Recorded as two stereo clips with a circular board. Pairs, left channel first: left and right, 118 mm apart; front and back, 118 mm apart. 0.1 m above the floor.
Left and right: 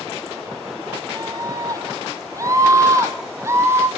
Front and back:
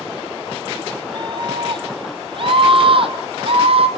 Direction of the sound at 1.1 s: 140° right.